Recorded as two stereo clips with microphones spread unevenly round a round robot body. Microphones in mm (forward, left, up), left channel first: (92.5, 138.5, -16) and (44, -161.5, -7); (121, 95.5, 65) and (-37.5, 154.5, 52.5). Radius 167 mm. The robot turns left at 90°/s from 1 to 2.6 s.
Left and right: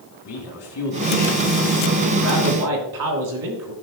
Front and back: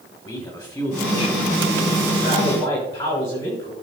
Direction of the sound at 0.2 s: 45° left.